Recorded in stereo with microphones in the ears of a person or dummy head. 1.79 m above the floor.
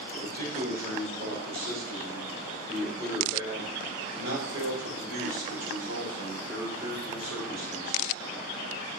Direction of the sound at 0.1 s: 45° right (ahead or behind).